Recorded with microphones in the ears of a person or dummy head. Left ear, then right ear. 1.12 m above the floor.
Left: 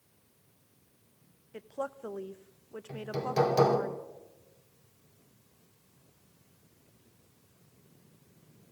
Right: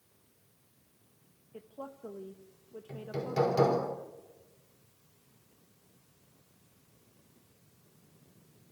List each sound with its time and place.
1.5 s a woman speaking: 55° left (ahead or behind), 1.0 m
2.9 s hammering: 10° left (ahead or behind), 4 m